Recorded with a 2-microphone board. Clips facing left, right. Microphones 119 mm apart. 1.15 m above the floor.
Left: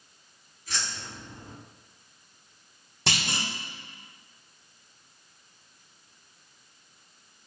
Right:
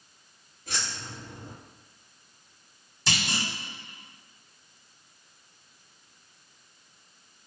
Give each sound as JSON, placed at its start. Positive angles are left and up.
{"t": 0.7, "sound": "keys jangling", "side_deg": -55, "distance_m": 1.4}
{"t": 3.1, "sound": "a clunk", "side_deg": 60, "distance_m": 1.2}